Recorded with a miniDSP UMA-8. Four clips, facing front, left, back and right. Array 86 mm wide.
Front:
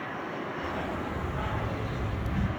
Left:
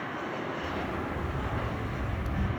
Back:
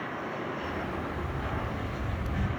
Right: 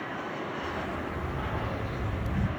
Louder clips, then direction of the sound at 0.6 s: Even, front 1 dB; 15° left.